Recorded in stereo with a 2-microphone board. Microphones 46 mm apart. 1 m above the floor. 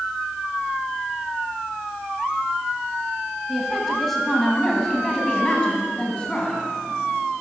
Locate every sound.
3.5 s a woman speaking: 5° right (ahead or behind), 8.5 m; by 6.6 s 25° left (ahead or behind), 10.5 m